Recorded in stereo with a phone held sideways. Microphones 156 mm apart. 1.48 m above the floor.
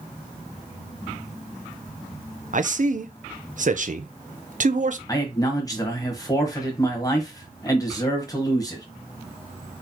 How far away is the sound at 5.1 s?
About 1.4 m.